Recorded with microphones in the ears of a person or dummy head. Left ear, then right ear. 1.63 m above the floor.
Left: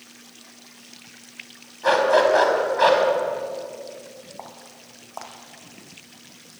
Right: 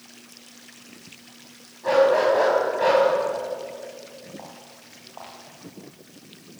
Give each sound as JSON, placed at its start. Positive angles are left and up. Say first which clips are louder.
{"t": 1.8, "sound": "a dog barking", "louder": "left 1 dB", "side_deg": 60, "distance_m": 5.5}
{"t": 4.4, "sound": "footsteps", "louder": "left 2 dB", "side_deg": 70, "distance_m": 4.5}